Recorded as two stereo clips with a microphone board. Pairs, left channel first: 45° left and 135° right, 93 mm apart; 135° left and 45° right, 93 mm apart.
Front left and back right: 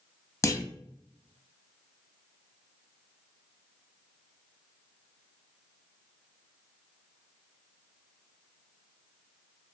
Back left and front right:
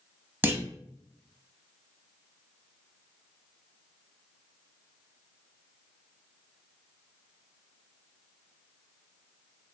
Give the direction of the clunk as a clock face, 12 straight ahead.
12 o'clock.